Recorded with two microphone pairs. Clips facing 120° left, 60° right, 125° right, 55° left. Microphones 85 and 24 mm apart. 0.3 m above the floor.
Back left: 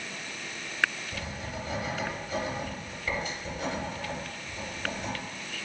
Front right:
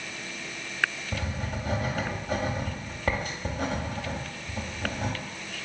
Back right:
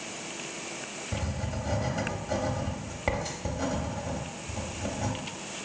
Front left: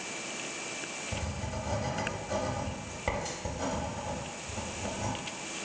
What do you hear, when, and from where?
1.1 s writing: 55° right, 0.7 m